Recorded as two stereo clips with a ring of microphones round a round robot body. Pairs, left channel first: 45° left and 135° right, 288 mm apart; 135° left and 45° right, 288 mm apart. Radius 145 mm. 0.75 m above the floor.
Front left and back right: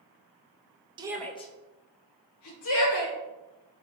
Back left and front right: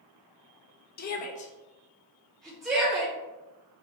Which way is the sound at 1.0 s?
165° left.